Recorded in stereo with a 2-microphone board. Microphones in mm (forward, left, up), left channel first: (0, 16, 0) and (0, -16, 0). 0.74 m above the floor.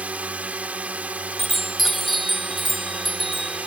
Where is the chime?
Centre (ahead or behind).